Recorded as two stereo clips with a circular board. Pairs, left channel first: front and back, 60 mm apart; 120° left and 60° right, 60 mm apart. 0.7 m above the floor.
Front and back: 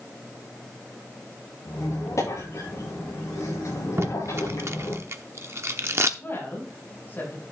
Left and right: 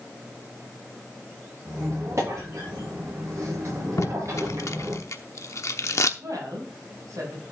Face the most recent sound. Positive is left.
turn(degrees=-55)